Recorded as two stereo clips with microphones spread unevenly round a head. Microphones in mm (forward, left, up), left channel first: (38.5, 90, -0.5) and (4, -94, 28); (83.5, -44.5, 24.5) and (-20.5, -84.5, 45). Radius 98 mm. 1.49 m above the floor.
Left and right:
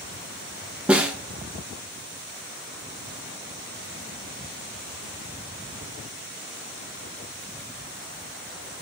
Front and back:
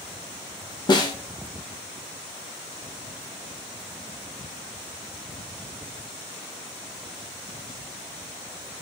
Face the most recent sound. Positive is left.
turn(degrees=-25)